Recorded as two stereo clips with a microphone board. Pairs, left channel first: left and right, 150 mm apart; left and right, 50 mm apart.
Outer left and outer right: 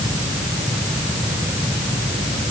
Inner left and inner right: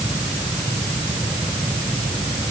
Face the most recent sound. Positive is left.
No sound to turn to.